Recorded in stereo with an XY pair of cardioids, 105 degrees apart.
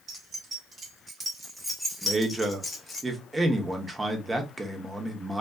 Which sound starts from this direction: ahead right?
Keys jangling, at 0.1 s.